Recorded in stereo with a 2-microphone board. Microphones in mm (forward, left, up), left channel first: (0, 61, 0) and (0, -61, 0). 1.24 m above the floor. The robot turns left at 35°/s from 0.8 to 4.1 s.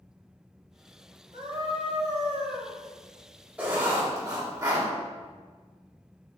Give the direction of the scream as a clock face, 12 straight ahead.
3 o'clock.